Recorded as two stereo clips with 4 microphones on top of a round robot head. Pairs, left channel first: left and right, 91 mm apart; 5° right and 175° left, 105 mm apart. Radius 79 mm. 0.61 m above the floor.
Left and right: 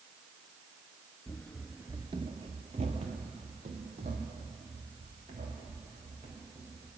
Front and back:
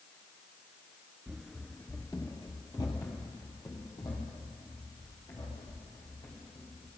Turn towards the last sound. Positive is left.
turn(degrees=-70)